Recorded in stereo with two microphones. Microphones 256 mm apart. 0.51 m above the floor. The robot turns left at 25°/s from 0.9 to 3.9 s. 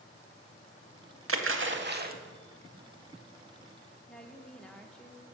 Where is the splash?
55° right (ahead or behind), 0.7 m; by 2.1 s 35° right (ahead or behind), 0.7 m.